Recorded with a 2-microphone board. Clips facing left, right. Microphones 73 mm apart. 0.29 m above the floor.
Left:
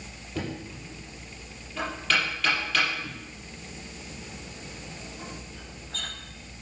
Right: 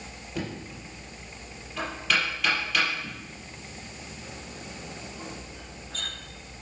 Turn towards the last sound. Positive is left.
turn(degrees=-5)  # may be behind; listen again after turning